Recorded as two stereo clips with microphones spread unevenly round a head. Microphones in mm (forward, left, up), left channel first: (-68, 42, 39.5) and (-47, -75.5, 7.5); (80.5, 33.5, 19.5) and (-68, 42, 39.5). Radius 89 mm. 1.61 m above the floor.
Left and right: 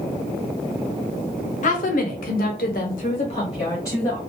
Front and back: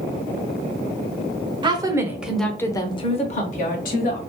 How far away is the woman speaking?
About 0.8 m.